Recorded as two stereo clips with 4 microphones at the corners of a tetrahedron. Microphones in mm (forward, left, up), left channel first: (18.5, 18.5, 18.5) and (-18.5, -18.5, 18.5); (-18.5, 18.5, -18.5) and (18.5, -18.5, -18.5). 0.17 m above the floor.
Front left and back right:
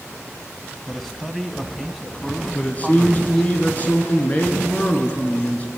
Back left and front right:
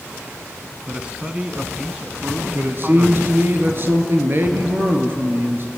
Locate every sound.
0.9 s a man speaking: 40° right, 1.2 m
2.5 s a man speaking: 10° right, 3 m